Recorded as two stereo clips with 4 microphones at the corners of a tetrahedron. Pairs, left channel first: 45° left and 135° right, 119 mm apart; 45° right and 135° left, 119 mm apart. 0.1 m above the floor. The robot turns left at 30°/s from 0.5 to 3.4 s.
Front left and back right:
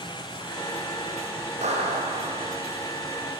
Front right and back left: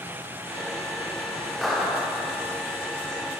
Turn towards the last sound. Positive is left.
turn(degrees=175)